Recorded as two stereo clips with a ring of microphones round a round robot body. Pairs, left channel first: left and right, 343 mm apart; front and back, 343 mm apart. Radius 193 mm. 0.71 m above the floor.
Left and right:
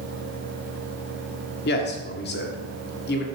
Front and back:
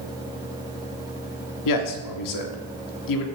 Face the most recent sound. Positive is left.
turn(degrees=30)